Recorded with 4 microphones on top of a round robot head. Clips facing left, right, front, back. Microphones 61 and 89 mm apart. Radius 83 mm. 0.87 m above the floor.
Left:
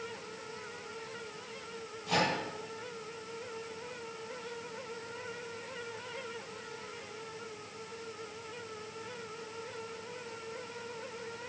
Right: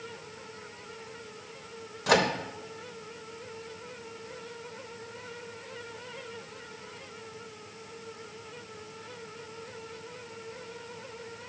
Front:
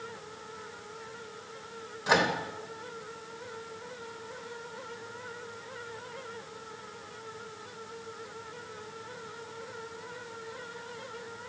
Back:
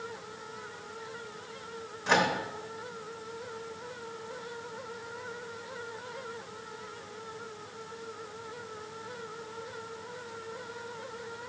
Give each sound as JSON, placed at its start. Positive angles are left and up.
{"t": 2.1, "sound": "a microwave", "azimuth_deg": -85, "distance_m": 0.8}